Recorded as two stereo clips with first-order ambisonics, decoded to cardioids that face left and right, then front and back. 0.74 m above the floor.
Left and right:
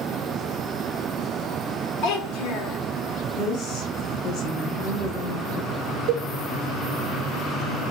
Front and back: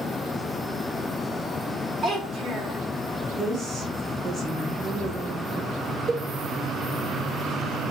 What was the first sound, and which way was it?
A child speaking, 110° left.